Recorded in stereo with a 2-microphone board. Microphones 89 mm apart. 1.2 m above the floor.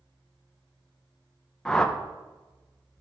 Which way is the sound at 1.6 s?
10° left (ahead or behind).